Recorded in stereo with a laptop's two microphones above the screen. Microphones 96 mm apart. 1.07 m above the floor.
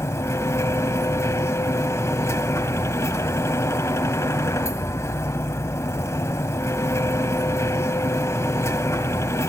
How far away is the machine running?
About 1.4 m.